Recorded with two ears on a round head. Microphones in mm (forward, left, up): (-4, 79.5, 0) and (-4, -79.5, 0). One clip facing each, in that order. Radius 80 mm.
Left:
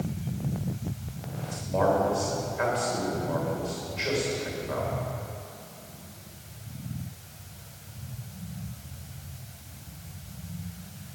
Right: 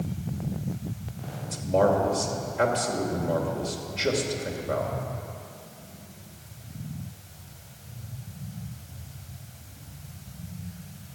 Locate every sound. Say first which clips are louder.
1.4 s a man speaking: right 3 dB; 45° right (ahead or behind), 2.5 m